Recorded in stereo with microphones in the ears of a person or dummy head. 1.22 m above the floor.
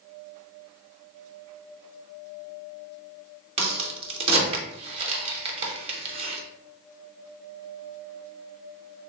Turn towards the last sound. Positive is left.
turn(degrees=-30)  # may be behind; listen again after turning